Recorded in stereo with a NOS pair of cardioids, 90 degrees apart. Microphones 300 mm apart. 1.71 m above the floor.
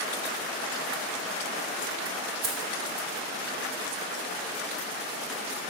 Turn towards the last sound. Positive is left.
turn(degrees=-70)